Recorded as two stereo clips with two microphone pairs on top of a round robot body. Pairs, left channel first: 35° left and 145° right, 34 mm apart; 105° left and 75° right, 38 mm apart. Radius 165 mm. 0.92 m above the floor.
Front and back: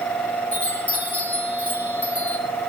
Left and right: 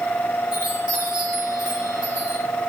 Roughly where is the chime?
Ahead.